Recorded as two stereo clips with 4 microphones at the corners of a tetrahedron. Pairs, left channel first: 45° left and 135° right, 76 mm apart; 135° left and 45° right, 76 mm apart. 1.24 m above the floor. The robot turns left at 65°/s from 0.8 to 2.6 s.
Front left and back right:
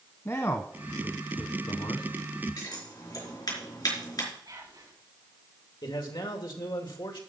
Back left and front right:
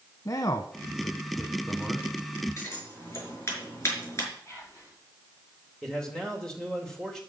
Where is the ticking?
No ticking in this recording.